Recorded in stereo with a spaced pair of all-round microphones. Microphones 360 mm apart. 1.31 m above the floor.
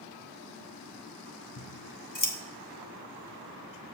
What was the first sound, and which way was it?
Scissors, 55° left (ahead or behind).